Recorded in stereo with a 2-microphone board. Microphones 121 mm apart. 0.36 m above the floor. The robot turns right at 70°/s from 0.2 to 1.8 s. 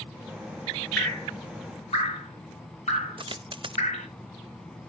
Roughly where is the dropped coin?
Right.